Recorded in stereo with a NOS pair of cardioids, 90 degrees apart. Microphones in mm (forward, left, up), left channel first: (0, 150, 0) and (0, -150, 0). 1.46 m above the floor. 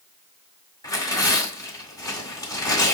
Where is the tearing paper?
10° left, 1.5 m.